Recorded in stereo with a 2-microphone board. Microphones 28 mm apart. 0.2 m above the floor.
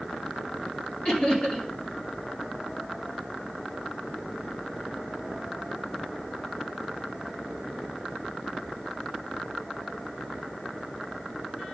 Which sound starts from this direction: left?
Laughter, at 1.1 s.